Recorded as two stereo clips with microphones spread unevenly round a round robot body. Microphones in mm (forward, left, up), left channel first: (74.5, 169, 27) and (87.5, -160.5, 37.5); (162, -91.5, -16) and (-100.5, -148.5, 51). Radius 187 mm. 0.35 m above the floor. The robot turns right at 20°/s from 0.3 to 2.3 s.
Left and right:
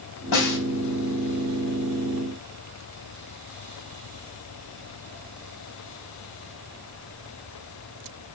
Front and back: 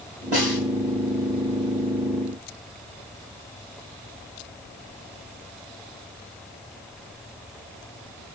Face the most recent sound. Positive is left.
turn(degrees=160)